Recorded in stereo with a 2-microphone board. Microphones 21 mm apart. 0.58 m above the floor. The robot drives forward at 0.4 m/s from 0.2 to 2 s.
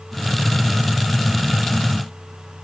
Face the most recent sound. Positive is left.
No sound to turn to.